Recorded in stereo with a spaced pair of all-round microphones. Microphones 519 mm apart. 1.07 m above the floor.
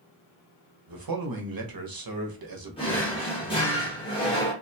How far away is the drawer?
About 1.1 m.